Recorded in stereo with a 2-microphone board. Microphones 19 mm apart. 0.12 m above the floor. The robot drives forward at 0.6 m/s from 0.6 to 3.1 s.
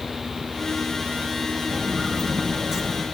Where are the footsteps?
20° right (ahead or behind), 3.5 m; by 3.0 s 30° right (ahead or behind), 4 m.